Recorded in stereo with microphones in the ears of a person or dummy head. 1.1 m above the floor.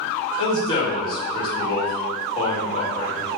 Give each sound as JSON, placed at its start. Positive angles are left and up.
{"t": 0.4, "sound": "a man speaking", "side_deg": 35, "distance_m": 1.7}